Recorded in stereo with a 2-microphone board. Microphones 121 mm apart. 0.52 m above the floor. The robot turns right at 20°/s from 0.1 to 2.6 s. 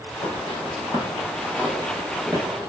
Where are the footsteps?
60° left (ahead or behind), 0.9 m; by 2.7 s 35° right (ahead or behind), 1.2 m.